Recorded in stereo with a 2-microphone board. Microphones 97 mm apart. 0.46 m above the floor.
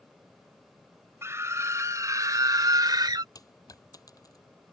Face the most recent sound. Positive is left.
turn(degrees=40)  # may be behind; listen again after turning